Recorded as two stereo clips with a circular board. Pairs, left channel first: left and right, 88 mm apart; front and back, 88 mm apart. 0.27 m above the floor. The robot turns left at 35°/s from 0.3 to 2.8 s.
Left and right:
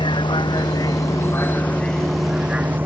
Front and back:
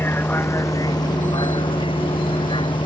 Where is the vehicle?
65° left; by 2.9 s 25° right.